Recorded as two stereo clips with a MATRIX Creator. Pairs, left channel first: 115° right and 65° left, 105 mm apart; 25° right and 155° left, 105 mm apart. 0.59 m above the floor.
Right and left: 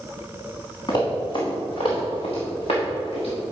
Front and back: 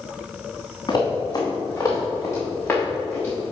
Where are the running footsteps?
70° right, 3.5 m; by 3.4 s 100° right, 5 m.